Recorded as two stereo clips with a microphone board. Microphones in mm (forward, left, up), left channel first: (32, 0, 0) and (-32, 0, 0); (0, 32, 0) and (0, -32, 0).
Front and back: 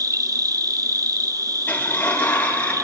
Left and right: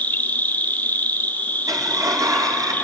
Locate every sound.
0.0 s an insect: 155° left, 0.9 m
1.7 s a sliding door: 70° right, 4 m